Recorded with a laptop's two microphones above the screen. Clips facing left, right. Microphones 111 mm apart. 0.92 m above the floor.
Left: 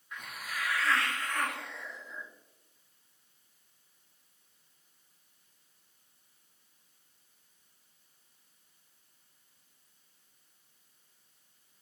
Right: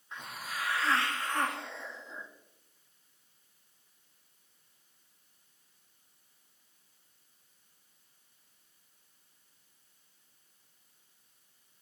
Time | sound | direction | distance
0.1 | a hiss | 30° right (ahead or behind) | 1.0 m